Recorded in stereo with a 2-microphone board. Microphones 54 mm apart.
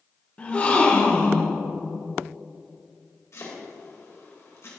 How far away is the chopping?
About 2 m.